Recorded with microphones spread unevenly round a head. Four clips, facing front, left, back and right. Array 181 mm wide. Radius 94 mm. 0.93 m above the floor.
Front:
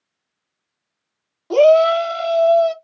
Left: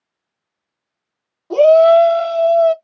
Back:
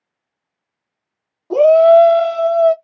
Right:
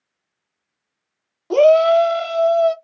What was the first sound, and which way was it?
A shout, 135° right.